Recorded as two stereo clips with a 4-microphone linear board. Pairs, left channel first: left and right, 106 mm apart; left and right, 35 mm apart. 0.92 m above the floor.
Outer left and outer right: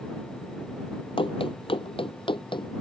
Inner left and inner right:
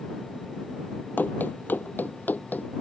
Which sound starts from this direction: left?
Running footsteps, at 1.2 s.